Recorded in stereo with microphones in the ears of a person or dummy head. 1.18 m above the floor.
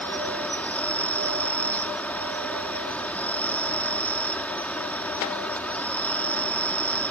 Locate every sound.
0.0 s an insect: 5° left (ahead or behind)